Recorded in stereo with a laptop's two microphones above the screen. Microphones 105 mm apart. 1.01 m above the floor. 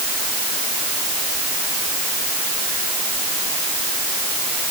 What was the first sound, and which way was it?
Only background noise.